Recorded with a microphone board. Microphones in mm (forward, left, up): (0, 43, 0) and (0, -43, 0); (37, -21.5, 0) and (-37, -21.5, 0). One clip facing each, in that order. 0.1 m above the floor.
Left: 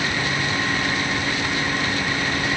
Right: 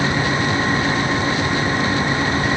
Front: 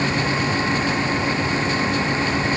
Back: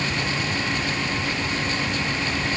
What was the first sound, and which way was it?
Only background noise.